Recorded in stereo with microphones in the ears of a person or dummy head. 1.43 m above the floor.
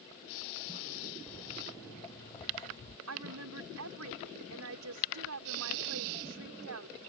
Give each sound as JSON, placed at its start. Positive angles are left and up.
{"t": 1.3, "sound": "footsteps", "side_deg": 10}
{"t": 3.1, "sound": "a woman speaking", "side_deg": -80}